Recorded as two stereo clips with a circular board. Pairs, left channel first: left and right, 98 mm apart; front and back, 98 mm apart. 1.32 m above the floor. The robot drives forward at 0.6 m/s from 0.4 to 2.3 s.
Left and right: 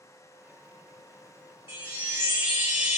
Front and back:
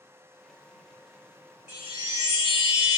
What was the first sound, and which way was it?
A chime, 130° right.